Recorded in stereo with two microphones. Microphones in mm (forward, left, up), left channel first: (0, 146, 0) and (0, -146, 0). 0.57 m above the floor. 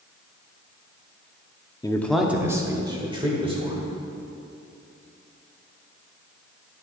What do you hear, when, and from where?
1.8 s a man speaking: 15° left (ahead or behind), 0.6 m; by 3.8 s 20° right (ahead or behind), 2 m